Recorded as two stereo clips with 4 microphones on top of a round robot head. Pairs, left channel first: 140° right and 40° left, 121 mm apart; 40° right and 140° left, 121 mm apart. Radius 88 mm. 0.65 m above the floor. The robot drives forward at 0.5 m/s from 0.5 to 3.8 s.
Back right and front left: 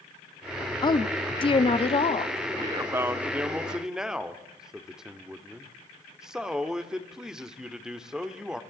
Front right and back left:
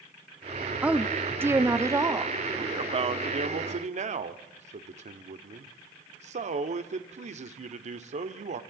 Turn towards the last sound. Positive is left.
turn(degrees=120)